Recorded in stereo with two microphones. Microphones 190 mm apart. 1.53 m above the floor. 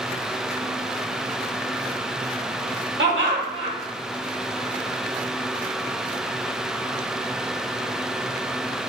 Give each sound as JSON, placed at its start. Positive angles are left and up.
{"t": 3.0, "sound": "laughter", "side_deg": -85, "distance_m": 1.9}